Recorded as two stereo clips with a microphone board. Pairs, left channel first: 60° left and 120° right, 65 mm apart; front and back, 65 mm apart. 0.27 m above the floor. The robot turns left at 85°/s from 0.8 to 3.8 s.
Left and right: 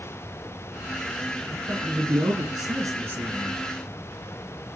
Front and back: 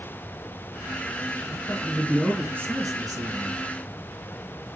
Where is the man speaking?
35° right, 3.5 m; by 3.6 s 145° left, 3.5 m.